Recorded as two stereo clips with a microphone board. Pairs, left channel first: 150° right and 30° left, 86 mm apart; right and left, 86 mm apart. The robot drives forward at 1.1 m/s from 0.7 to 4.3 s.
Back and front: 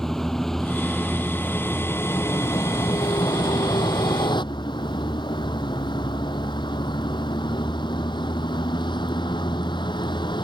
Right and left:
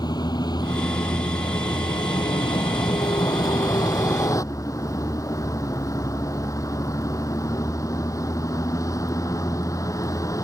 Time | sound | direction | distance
0.0 | a vehicle | 65° right | ?